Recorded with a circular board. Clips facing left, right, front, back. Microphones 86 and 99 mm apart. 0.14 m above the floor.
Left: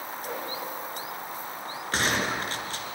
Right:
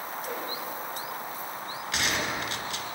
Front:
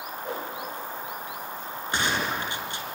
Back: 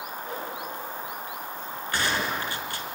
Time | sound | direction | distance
0.2 | a whoosh | straight ahead | 9.5 m
1.9 | a gunshot | 60° left | 2 m